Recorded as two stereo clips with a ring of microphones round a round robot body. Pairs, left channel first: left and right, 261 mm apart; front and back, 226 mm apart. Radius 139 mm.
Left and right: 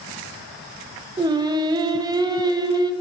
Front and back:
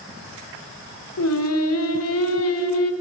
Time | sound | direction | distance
1.2 | singing | 15° right | 1.5 m